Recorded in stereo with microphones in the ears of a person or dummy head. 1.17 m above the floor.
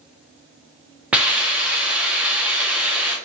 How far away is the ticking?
No ticking in this recording.